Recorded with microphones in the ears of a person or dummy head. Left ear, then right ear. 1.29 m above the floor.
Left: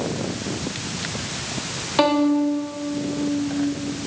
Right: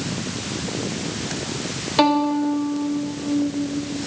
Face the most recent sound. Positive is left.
turn(degrees=0)  # may be behind; listen again after turning